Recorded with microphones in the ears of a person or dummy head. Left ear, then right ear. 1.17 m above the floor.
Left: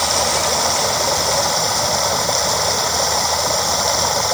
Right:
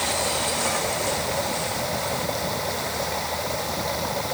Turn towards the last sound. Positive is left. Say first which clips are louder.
# left 7 dB
turn(degrees=50)  # may be behind; listen again after turning